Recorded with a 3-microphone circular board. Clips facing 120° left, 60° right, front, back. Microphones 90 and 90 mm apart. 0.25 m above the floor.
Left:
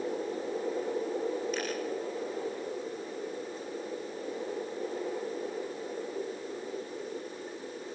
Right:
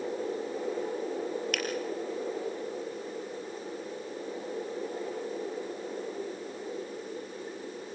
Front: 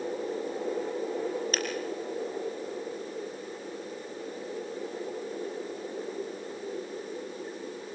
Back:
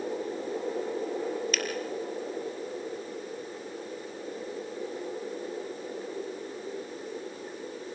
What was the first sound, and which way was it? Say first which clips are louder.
A finger snap: even, even; 50° right.